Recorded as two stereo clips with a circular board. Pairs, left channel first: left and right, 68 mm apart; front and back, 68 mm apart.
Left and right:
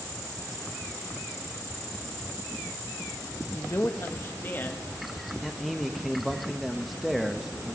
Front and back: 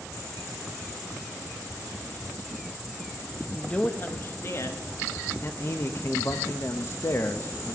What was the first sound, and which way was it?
A man speaking, 75° left.